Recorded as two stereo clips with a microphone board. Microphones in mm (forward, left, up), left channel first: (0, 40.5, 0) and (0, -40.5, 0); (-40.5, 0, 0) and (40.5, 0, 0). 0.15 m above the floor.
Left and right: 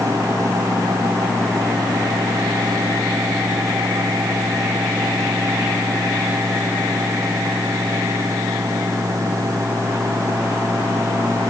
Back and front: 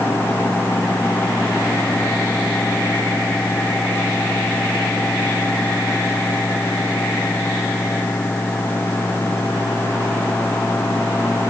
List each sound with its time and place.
Only background noise.